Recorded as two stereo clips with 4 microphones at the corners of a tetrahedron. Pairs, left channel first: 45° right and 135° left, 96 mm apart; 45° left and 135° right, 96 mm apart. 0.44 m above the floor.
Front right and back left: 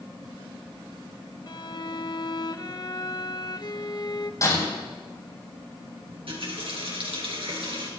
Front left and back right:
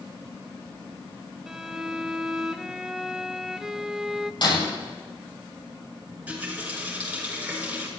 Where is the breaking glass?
10° left, 8.5 m.